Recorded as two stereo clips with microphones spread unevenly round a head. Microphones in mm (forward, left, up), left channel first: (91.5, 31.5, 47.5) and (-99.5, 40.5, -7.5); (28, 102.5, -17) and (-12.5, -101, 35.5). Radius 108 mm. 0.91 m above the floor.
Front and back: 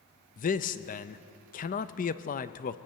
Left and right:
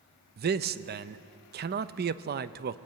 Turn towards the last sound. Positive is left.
turn(degrees=-55)